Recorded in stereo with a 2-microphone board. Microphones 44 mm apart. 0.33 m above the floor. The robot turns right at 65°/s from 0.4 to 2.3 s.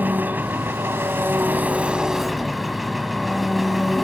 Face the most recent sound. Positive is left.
turn(degrees=-5)